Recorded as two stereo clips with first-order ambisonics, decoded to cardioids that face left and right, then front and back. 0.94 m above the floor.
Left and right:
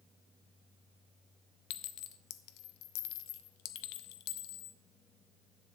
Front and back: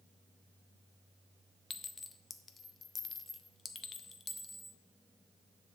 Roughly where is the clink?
Left.